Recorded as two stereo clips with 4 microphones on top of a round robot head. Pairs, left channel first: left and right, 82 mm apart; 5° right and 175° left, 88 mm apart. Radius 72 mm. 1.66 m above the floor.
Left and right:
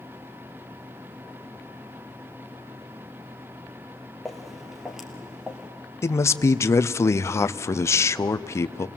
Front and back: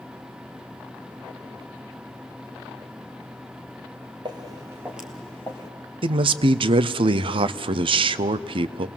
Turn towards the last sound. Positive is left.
turn(degrees=145)